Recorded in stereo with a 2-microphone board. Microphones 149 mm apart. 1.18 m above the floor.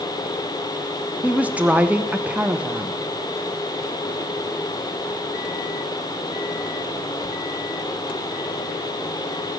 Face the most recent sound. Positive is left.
turn(degrees=-10)  # may be behind; listen again after turning